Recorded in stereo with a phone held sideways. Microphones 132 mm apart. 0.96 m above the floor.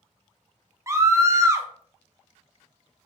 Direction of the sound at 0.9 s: 20° right (ahead or behind).